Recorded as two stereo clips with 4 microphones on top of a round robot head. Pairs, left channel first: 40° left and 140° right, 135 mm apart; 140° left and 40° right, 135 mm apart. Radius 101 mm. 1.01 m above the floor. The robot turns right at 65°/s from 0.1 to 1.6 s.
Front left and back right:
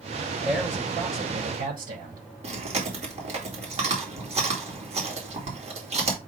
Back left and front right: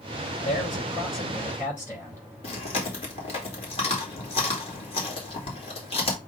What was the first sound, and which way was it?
A man speaking, 135° left.